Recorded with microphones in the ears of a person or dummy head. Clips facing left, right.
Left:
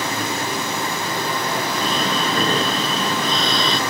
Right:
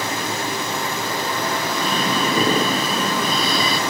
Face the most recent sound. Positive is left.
turn(degrees=-5)  # may be behind; listen again after turning